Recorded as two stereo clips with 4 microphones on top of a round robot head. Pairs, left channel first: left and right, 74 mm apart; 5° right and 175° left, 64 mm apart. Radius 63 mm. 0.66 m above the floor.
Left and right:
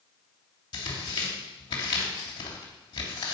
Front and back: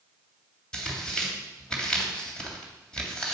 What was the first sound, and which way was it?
Tearing paper, 75° left.